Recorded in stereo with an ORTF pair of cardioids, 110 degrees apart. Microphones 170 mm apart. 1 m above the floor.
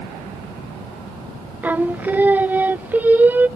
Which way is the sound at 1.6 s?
10° right.